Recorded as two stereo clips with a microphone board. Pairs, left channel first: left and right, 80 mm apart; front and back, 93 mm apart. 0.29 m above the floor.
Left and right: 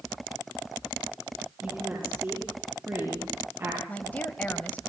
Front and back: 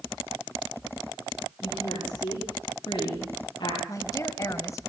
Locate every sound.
1.6 s a woman speaking: 25° right, 9.5 m; by 3.8 s 35° right, 9 m
3.9 s a woman speaking: 30° left, 1.5 m